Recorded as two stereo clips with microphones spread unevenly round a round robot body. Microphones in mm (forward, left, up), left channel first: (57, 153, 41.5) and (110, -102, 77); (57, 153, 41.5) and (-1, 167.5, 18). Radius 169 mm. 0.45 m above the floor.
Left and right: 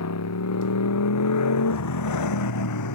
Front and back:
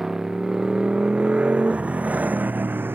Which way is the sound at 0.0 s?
85° left.